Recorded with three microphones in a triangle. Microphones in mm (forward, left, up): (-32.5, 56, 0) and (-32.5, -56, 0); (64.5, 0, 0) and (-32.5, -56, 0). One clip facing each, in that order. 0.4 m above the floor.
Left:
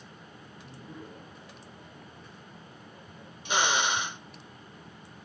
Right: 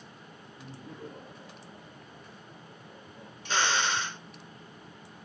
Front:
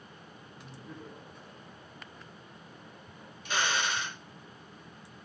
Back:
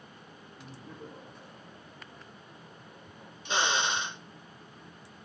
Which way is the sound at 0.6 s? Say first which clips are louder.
Right 1 dB, back 1 dB; 80° right.